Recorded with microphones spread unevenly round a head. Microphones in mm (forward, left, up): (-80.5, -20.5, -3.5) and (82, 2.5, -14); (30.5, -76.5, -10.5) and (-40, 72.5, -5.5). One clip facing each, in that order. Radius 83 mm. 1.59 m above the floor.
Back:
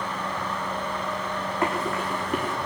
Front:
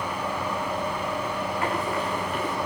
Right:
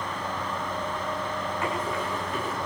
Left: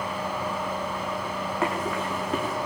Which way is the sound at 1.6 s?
140° left.